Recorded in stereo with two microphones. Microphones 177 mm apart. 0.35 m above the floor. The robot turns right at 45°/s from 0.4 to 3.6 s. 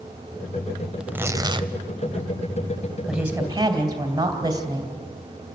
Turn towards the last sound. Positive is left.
turn(degrees=-20)  # may be behind; listen again after turning